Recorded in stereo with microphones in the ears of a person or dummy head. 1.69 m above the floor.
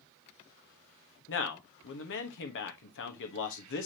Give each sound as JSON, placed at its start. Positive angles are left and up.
{"t": 1.3, "sound": "a man speaking", "side_deg": 60, "distance_m": 1.3}